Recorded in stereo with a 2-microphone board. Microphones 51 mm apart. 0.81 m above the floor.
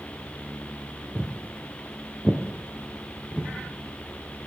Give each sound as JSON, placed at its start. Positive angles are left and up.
{"t": 1.1, "sound": "footsteps", "side_deg": 0, "distance_m": 1.0}